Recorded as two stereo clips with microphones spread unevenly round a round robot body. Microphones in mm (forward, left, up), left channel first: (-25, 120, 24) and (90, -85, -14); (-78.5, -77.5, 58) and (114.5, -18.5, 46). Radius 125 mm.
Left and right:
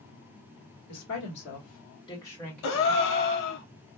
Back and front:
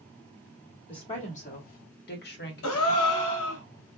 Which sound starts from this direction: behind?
A gasp, at 2.6 s.